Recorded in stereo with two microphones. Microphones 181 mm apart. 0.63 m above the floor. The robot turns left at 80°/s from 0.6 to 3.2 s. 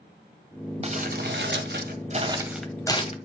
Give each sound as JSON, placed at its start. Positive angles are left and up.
{"t": 0.8, "sound": "crumpling", "azimuth_deg": -35, "distance_m": 2.0}